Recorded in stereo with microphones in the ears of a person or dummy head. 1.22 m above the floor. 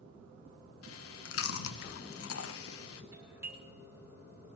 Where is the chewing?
75° left (ahead or behind), 0.8 m.